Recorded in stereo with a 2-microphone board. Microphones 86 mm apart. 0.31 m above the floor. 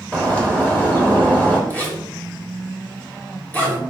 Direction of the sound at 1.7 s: 20° left (ahead or behind).